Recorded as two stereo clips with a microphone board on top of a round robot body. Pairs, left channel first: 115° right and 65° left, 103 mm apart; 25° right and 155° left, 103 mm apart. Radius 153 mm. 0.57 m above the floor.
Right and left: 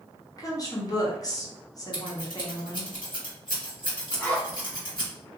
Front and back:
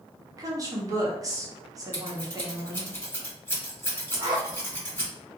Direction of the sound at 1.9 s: 85° right.